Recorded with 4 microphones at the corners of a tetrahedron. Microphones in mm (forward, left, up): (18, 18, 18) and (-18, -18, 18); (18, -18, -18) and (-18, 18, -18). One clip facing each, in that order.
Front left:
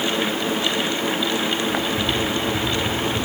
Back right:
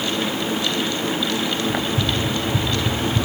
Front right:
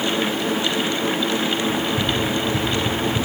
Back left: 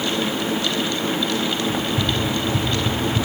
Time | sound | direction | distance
1.7 | running footsteps | 130° right | 3 m